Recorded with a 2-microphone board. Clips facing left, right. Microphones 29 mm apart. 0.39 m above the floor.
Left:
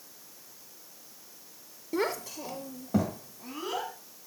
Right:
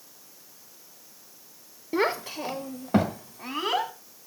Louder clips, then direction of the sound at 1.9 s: Right 5 dB; 25° right (ahead or behind).